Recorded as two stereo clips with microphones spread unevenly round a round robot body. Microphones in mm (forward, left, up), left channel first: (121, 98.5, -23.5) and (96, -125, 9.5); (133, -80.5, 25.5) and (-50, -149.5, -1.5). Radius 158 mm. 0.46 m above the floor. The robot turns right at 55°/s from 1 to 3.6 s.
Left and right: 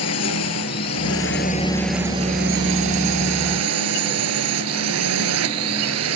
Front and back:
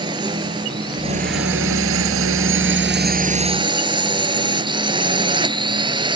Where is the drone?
125° left; by 6.2 s 95° right.